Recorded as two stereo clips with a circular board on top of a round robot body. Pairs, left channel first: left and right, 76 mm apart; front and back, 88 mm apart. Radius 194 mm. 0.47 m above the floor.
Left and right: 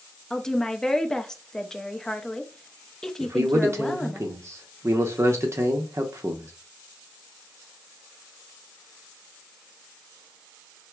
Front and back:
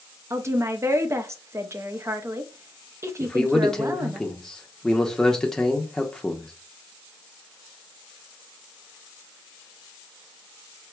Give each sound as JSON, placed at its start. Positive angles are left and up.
{"t": 0.3, "sound": "a woman speaking", "azimuth_deg": 165, "distance_m": 0.7}
{"t": 3.2, "sound": "a man speaking", "azimuth_deg": -80, "distance_m": 0.9}